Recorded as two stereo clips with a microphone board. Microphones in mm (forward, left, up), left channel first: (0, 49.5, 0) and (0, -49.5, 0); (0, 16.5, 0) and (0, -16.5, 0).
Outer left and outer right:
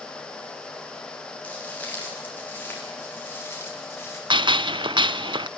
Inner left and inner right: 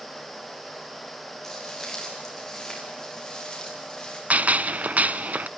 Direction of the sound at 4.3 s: 55° right (ahead or behind).